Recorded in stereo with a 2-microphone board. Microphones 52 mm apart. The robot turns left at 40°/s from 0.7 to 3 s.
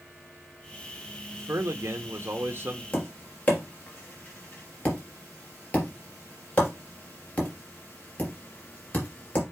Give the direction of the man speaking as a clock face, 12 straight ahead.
3 o'clock.